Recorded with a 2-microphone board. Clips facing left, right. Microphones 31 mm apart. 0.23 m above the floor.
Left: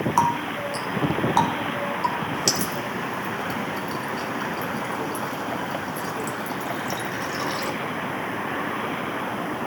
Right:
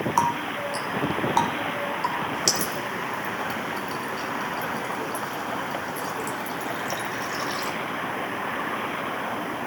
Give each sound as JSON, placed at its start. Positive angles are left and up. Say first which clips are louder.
{"t": 0.2, "sound": "a running tap", "louder": "left 2 dB", "side_deg": 0, "distance_m": 1.2}